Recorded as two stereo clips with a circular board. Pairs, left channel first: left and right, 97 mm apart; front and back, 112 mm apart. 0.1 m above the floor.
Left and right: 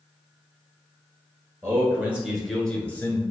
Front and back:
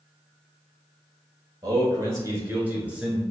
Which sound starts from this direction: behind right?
A man speaking, at 1.6 s.